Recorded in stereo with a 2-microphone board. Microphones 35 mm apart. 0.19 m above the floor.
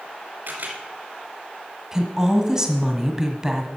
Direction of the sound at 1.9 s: 15° right (ahead or behind).